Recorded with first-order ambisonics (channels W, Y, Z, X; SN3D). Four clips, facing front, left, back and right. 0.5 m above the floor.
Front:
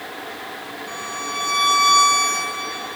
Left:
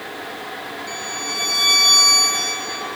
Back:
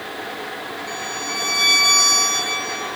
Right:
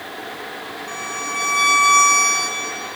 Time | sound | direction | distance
0.9 | a violin | 100° left | 5.5 m